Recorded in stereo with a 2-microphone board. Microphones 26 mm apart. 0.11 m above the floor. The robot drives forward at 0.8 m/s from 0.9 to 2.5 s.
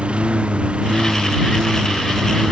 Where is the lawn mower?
45° right (ahead or behind).